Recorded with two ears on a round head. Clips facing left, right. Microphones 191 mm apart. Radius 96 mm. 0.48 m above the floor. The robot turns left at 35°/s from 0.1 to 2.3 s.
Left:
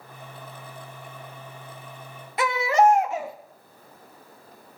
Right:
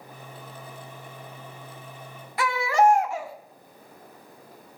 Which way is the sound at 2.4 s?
20° left (ahead or behind).